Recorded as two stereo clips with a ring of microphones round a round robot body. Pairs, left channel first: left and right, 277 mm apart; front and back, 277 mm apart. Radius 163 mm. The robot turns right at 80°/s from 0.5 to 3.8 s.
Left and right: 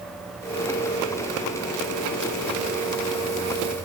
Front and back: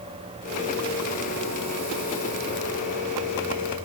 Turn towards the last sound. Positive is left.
No sound to turn to.